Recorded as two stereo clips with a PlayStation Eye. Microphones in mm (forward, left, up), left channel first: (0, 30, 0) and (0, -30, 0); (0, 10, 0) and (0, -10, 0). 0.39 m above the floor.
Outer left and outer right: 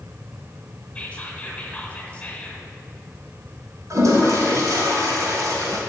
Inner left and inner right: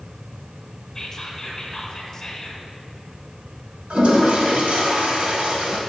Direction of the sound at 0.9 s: 20° left (ahead or behind).